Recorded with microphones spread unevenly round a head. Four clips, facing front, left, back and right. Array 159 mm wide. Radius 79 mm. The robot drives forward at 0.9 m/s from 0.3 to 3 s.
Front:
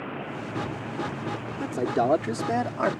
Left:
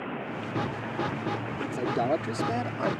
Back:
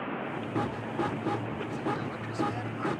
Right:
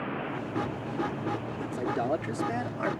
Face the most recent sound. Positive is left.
turn(degrees=10)